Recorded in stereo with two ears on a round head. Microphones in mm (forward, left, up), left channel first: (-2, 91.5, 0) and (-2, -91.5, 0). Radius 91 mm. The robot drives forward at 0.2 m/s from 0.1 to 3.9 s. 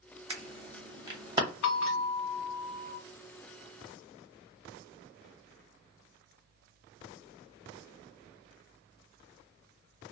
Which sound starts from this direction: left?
A bell, at 1.6 s.